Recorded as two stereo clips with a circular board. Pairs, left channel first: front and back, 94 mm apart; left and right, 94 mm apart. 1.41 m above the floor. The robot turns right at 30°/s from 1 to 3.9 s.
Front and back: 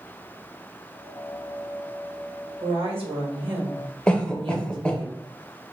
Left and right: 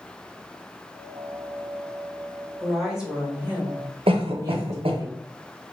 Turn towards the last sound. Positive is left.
turn(degrees=-80)